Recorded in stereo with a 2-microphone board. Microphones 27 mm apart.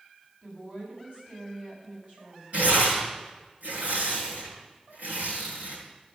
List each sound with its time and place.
0.4 s a woman speaking: 40° right (ahead or behind), 7.5 m
2.5 s tearing paper: 75° right (ahead or behind), 8.5 m